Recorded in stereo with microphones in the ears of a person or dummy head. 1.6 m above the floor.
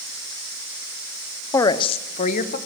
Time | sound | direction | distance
1.5 | a woman speaking | 15° left (ahead or behind) | 1.0 m